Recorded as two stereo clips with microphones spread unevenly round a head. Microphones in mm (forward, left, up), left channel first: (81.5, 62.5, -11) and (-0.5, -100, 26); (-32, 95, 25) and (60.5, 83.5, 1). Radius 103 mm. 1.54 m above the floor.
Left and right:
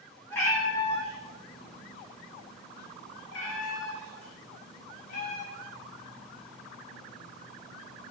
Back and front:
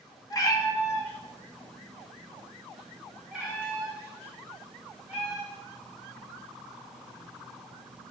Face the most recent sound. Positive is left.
turn(degrees=60)